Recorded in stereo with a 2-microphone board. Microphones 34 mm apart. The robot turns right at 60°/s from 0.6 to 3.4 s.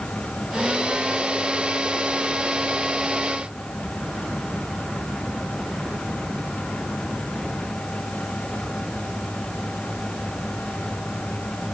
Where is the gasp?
I don't hear a gasp.